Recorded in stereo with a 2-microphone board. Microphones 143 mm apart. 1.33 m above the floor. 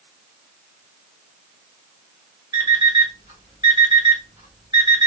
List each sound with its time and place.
2.5 s an alarm clock: 35° right (ahead or behind), 1.8 m